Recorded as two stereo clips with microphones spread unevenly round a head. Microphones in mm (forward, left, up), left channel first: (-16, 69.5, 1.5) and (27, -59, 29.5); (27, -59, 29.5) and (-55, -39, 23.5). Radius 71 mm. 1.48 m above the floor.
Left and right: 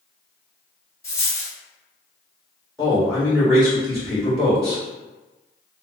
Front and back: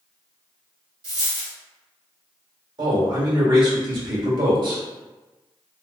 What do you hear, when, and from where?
1.0 s a dropped coin: 175° right, 1.5 m
2.8 s a man speaking: 165° right, 1.9 m